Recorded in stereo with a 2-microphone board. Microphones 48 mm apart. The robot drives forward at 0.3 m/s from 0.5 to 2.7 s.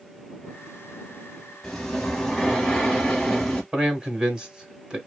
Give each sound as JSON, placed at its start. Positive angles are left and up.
{"t": 1.6, "sound": "breathing", "side_deg": 10, "distance_m": 0.9}
{"t": 3.7, "sound": "a man speaking", "side_deg": -15, "distance_m": 0.9}